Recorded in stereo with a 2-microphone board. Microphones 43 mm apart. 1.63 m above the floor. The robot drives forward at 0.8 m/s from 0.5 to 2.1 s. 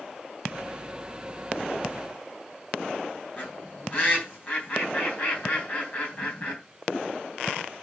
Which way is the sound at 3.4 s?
35° left (ahead or behind).